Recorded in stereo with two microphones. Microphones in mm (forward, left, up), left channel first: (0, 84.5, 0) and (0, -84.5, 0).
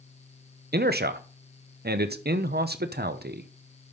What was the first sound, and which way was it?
A man speaking, 70° right (ahead or behind).